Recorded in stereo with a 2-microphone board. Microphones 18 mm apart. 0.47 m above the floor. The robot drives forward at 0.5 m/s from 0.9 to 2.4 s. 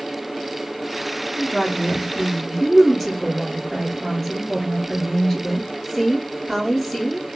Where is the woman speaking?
10° left (ahead or behind), 3 m; by 7.3 s 5° left (ahead or behind), 3.5 m.